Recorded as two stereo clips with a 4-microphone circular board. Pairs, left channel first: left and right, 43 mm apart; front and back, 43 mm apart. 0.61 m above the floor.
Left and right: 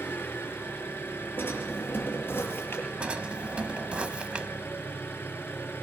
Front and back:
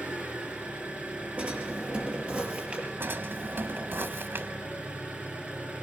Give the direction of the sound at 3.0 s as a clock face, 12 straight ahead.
5 o'clock.